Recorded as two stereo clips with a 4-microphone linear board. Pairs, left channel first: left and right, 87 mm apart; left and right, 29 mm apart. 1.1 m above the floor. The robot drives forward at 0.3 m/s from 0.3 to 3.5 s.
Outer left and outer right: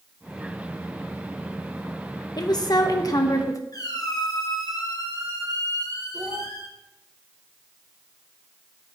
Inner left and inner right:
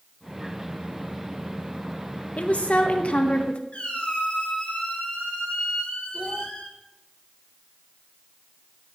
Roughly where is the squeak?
Left.